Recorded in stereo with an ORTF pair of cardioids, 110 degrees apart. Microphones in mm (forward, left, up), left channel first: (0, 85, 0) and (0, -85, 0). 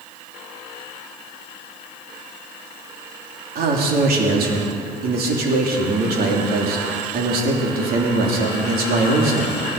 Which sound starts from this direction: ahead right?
A man speaking, at 3.5 s.